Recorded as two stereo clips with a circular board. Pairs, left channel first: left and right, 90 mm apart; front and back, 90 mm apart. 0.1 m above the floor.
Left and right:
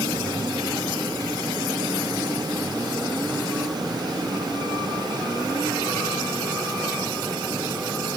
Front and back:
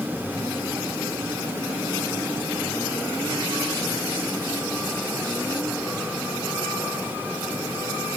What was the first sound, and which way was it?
Only background noise.